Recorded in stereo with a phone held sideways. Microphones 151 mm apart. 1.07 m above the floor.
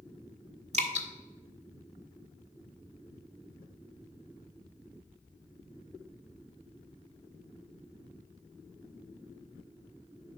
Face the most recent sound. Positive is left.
turn(degrees=-50)  # may be behind; listen again after turning